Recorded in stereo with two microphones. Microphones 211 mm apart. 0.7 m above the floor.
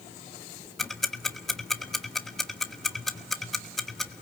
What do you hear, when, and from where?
0.8 s ticking: centre (ahead or behind), 1.2 m